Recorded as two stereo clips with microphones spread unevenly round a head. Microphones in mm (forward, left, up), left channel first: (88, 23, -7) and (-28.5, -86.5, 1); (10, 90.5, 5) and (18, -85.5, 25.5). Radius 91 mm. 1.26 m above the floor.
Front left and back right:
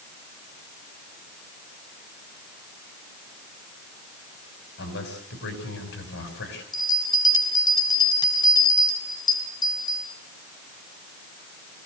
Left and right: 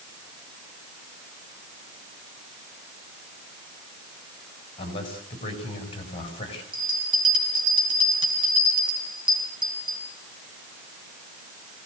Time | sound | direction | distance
4.8 | a man speaking | 30° left | 7.5 m
6.7 | a bell | 20° right | 5.5 m